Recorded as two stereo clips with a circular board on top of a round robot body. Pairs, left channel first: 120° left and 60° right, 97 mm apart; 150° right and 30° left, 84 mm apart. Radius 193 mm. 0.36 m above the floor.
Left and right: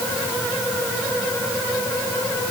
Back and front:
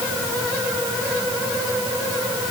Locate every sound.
Only background noise.